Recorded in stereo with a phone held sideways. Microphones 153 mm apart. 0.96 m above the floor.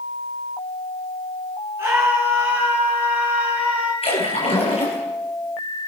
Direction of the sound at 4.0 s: 40° left (ahead or behind).